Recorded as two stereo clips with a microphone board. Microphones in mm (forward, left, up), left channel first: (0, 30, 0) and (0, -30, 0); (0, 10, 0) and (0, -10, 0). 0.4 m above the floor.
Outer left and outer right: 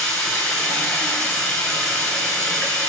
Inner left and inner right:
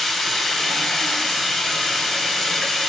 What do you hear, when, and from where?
0.0 s running water: 15° left (ahead or behind), 1.0 m